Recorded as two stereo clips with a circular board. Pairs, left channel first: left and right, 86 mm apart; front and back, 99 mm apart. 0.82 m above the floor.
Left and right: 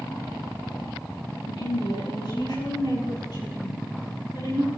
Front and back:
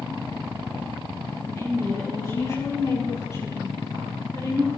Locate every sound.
1.4 s a woman speaking: 60° left, 8 m; by 4.7 s 55° left, 11 m